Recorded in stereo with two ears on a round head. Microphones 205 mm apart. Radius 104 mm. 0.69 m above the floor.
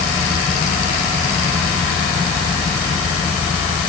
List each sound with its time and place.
Only background noise.